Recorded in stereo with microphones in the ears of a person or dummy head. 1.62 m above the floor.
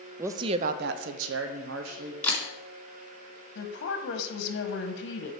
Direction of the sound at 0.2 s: 15° right (ahead or behind).